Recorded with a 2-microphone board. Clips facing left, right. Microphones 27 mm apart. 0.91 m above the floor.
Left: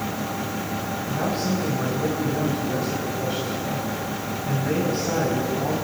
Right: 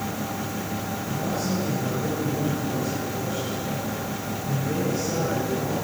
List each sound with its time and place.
1.1 s a man speaking: 50° left (ahead or behind), 7 m